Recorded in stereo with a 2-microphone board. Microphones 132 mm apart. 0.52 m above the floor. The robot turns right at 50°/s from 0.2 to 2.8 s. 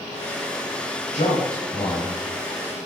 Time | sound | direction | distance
1.1 | a man speaking | 80° left | 2.5 m